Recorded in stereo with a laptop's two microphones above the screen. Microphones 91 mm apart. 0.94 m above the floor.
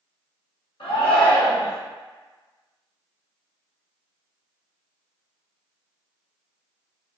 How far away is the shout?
About 1.4 m.